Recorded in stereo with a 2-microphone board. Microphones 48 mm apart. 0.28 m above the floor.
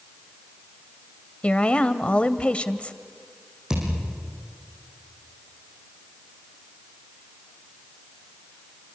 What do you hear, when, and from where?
1.4 s a woman speaking: 25° left (ahead or behind), 1.0 m
3.7 s a thud: 15° right (ahead or behind), 8 m